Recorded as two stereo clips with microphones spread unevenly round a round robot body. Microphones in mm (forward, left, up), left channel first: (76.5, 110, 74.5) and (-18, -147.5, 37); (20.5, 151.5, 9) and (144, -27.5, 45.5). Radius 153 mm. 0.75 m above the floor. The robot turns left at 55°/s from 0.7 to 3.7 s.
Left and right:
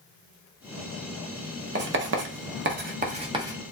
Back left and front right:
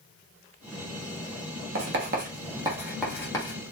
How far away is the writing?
About 1.3 m.